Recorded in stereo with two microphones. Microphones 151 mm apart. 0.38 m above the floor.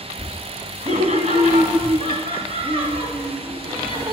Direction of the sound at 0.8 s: 45° right (ahead or behind).